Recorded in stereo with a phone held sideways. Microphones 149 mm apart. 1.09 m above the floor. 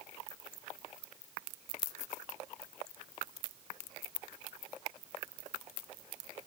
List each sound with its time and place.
Only background noise.